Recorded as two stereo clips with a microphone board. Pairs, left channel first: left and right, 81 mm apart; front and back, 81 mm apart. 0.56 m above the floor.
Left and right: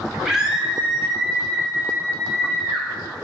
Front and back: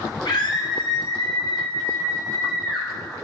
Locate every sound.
0.2 s a scream: 5° right, 4 m; by 2.9 s 10° right, 6.5 m